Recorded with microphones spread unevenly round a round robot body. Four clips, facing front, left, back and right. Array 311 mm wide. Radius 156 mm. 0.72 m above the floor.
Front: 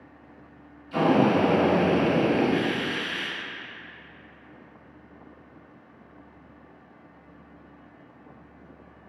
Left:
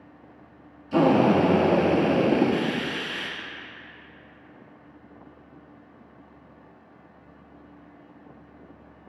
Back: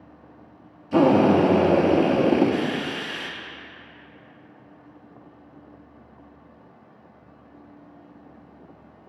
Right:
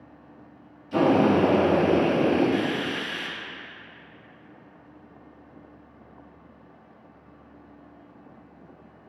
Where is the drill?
160° left, 1.5 m.